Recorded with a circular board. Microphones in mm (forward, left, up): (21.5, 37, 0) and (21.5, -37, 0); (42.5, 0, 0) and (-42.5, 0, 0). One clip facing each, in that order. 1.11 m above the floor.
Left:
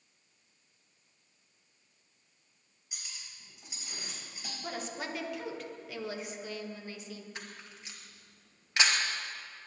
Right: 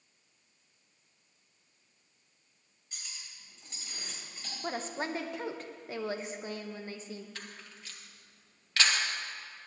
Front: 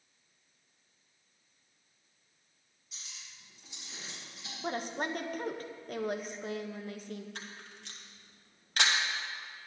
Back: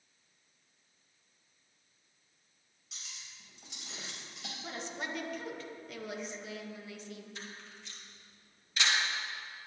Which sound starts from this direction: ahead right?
A woman speaking, at 4.6 s.